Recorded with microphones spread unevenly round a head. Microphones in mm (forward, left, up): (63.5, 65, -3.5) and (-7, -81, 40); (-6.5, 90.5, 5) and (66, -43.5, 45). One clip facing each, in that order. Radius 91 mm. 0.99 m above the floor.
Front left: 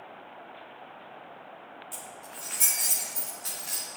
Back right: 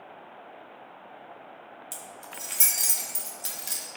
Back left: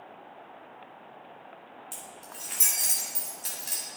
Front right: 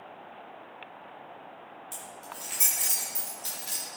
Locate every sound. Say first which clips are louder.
1.9 s keys jangling: back right 1 dB, front right 2 dB; 160° right, 1.8 m